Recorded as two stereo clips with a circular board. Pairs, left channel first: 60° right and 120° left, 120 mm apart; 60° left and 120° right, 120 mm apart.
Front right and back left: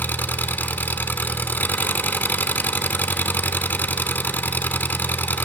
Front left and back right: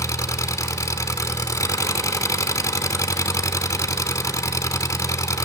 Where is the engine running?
10° left, 0.8 m.